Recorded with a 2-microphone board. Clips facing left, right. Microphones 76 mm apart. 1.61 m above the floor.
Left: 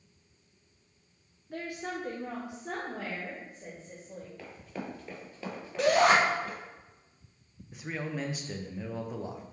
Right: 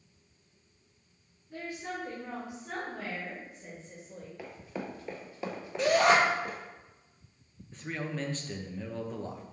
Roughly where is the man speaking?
Centre.